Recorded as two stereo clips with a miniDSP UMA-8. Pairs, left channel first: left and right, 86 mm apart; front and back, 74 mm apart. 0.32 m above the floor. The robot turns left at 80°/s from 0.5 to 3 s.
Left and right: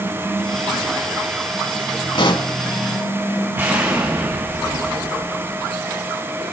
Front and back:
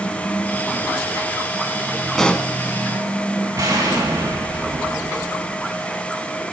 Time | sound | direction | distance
2.1 | a pop | 90° left | 0.6 m
3.5 | an explosion | 150° right | 2.5 m